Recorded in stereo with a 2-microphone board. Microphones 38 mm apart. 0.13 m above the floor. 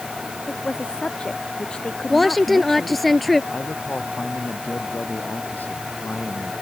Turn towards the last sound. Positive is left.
turn(degrees=55)  # may be behind; listen again after turning